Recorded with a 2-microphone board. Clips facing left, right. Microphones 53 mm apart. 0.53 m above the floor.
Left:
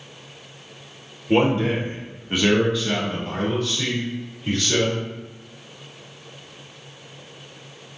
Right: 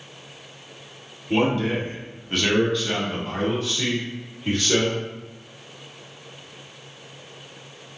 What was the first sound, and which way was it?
A man speaking, 35° left (ahead or behind).